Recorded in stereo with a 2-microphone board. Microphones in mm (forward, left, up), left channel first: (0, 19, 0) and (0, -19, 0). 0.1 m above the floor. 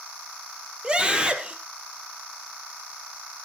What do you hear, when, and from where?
0.8 s a scream: 25° right (ahead or behind), 3.5 m